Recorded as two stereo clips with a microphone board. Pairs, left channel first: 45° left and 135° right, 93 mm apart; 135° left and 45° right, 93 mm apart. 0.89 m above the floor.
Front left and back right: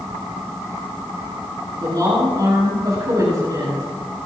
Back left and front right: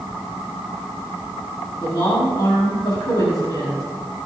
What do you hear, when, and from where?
1.8 s a woman speaking: straight behind, 6.5 m